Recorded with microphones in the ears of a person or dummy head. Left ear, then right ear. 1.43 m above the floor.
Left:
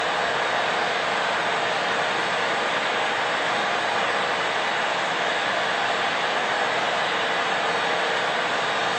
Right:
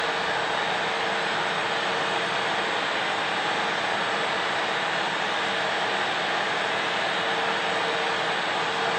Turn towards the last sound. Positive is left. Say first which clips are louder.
# left 2 dB
turn(degrees=55)  # may be behind; listen again after turning